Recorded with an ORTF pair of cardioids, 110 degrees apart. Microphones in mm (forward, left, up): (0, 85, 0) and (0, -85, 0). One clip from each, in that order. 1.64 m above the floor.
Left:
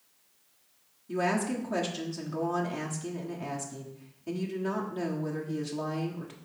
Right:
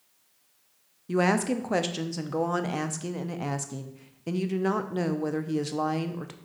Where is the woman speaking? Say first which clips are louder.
Right 4 dB; 45° right, 0.9 m.